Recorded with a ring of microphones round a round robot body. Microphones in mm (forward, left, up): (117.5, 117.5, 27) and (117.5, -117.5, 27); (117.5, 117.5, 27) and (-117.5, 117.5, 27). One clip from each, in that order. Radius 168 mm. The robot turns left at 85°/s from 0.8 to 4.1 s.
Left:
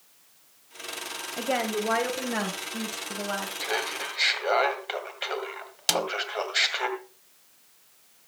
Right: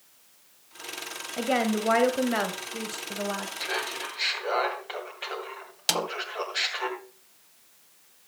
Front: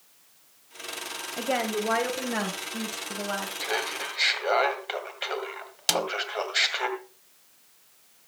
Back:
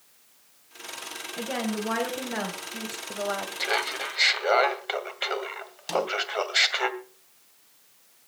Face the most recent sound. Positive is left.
turn(degrees=10)